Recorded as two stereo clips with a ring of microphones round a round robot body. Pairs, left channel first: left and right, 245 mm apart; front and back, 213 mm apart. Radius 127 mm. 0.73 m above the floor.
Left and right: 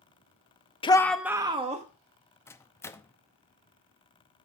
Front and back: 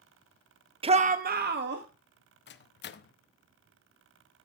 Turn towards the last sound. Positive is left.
turn(degrees=15)